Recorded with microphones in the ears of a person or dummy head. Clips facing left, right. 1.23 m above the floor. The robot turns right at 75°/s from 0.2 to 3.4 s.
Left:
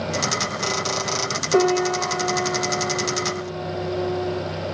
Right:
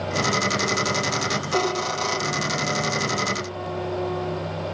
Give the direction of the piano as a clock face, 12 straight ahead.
10 o'clock.